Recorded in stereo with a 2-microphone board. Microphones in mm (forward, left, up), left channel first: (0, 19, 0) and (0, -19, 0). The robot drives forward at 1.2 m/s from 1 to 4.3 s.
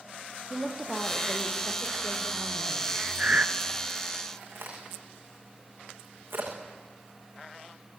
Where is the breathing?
45° right (ahead or behind), 2 m; by 3.5 s 40° right (ahead or behind), 2 m.